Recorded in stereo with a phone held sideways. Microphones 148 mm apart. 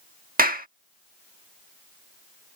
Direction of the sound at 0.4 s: 75° right (ahead or behind).